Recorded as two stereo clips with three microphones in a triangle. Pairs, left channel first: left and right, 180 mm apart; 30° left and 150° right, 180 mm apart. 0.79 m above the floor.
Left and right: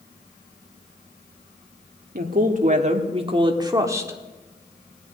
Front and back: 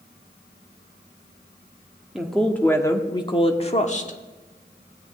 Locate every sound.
2.1 s a woman speaking: 60° right, 1.4 m; by 4.2 s 15° right, 1.7 m